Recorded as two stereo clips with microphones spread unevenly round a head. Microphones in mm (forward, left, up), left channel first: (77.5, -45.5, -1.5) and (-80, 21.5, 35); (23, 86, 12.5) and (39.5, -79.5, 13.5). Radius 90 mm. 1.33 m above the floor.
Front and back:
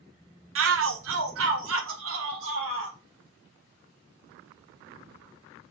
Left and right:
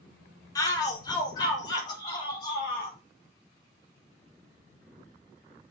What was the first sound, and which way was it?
A shout, 165° left.